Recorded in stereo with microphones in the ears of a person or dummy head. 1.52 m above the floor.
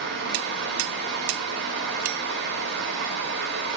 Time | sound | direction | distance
0.0 | a fan | 65° right (ahead or behind) | 4 m